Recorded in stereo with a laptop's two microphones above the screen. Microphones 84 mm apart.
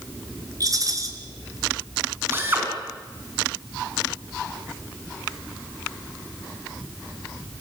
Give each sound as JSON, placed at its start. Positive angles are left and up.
{"t": 0.6, "sound": "a rattle", "side_deg": -45, "distance_m": 4.0}
{"t": 2.3, "sound": "a drill", "side_deg": -25, "distance_m": 4.5}